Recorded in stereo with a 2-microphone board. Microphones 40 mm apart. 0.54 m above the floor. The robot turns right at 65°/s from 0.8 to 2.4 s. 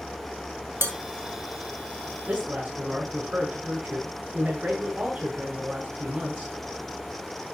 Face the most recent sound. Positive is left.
turn(degrees=-40)  # may be behind; listen again after turning